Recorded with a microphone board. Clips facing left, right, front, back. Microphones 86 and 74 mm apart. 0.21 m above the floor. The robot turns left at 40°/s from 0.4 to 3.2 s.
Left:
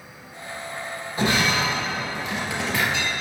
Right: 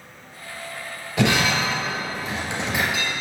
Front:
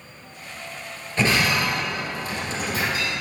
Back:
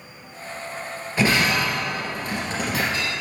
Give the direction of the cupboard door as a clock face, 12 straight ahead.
I don't hear a cupboard door.